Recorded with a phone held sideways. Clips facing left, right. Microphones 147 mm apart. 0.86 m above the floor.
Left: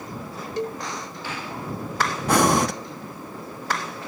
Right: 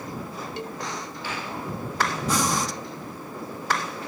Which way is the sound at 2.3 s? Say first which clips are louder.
Left 10 dB; 65° left (ahead or behind).